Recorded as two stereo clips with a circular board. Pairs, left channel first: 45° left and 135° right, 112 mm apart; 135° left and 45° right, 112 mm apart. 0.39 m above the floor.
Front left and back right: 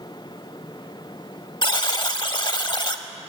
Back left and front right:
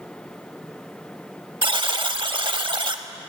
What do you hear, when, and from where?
1.6 s a buzzer: straight ahead, 0.6 m